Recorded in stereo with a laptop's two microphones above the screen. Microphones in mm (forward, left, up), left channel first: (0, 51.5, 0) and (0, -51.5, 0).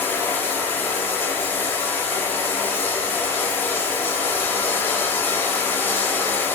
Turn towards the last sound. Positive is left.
turn(degrees=20)  # may be behind; listen again after turning